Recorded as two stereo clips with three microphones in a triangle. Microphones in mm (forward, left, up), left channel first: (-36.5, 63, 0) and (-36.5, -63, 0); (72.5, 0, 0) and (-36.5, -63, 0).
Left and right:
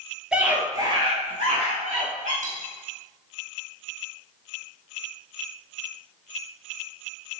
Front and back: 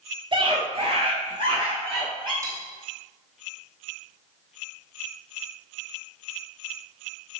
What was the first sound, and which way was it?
A scream, 170° right.